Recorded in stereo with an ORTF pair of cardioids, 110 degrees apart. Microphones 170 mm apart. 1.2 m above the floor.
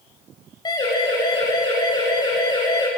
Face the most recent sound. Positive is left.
turn(degrees=25)